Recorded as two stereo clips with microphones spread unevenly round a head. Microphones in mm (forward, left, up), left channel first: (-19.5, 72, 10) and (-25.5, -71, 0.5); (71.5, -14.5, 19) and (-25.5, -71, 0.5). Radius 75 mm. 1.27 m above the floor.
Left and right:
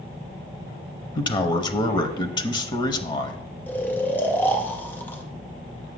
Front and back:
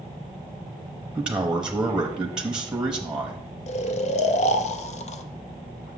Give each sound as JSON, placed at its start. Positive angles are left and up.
{"t": 1.1, "sound": "a man speaking", "azimuth_deg": 135, "distance_m": 0.7}
{"t": 3.7, "sound": "snoring", "azimuth_deg": 10, "distance_m": 0.6}